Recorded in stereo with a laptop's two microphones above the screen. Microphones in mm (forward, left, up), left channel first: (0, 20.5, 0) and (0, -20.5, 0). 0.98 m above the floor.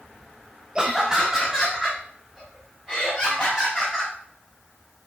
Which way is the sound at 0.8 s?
20° right (ahead or behind).